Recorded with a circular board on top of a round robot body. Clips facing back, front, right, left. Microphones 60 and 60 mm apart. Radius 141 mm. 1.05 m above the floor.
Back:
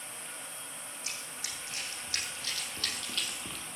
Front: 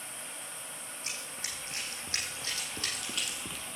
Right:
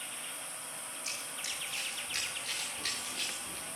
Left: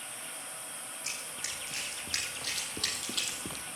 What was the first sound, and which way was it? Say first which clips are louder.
Running footsteps: front 2 dB, left 1 dB; 55° left.